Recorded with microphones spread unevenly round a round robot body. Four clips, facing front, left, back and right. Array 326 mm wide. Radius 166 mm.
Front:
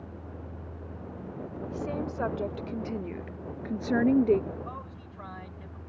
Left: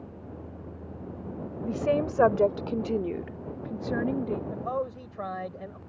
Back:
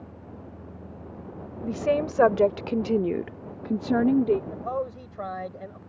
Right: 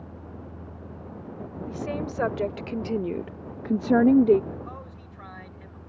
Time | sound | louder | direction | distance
1.6 | a woman speaking | left 6 dB, back 9 dB | 150° left | ?
4.5 | a man speaking | left 8 dB, back 10 dB | 135° left | ?